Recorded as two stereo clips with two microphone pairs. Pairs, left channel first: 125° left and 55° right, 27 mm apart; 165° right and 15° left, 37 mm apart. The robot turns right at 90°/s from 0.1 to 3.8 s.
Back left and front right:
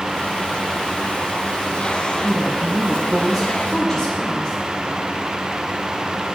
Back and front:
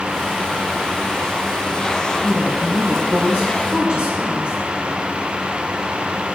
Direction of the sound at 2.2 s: 70° right.